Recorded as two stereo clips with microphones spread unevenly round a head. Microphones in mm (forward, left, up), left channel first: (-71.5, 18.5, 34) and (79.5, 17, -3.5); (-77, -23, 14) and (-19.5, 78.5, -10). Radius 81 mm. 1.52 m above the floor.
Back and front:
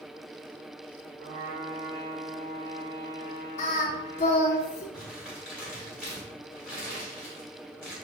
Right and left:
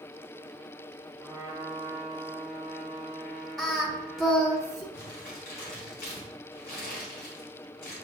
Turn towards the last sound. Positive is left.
turn(degrees=-85)